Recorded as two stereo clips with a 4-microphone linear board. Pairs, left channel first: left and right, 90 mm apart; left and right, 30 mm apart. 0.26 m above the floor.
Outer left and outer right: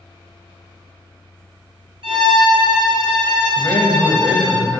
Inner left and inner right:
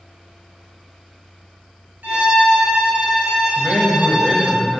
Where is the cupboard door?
No cupboard door in this recording.